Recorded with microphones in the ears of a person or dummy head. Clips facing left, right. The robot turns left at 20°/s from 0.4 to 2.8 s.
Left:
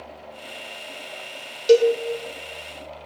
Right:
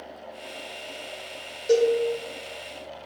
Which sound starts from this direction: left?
A cowbell, at 1.7 s.